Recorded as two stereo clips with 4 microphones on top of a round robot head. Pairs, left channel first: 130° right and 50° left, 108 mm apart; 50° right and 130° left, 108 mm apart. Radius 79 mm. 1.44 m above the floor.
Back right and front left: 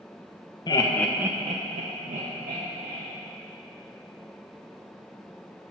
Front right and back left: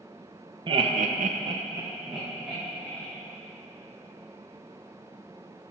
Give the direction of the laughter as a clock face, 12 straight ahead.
6 o'clock.